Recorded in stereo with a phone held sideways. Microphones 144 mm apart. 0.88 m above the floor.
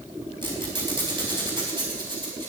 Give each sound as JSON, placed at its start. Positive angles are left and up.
{"t": 0.4, "sound": "a squeak", "side_deg": -35, "distance_m": 4.5}